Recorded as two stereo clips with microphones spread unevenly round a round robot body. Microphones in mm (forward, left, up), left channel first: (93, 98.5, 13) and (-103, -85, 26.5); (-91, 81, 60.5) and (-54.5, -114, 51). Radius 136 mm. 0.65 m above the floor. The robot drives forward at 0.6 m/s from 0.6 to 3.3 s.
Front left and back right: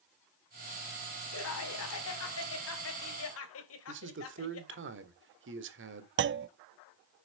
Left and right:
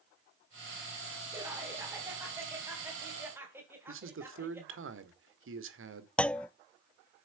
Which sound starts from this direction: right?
A man speaking, at 3.9 s.